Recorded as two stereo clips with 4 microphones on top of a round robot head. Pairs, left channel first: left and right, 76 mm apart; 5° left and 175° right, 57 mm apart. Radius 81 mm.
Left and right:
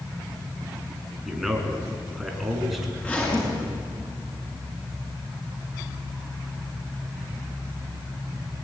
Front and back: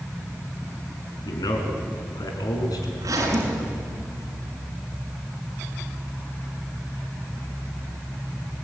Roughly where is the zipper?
Behind.